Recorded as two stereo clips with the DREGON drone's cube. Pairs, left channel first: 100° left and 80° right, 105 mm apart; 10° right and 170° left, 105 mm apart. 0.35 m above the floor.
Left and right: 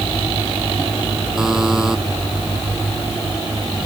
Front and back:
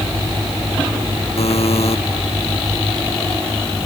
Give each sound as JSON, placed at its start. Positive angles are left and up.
{"t": 1.4, "sound": "a buzzer", "azimuth_deg": 5}